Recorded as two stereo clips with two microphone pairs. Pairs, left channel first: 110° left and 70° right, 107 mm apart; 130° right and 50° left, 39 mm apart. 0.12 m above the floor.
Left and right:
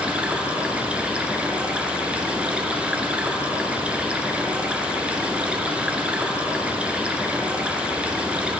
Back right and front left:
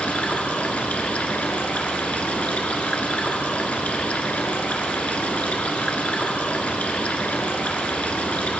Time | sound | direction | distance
0.0 | running water | 140° right | 1.0 m